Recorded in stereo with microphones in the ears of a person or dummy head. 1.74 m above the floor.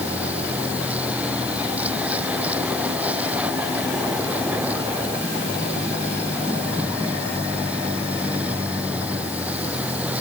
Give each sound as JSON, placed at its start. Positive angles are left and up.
{"t": 0.0, "sound": "a vehicle", "side_deg": -10}